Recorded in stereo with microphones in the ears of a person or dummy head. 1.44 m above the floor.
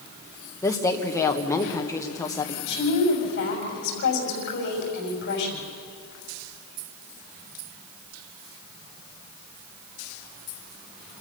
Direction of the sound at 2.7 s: 60° left (ahead or behind).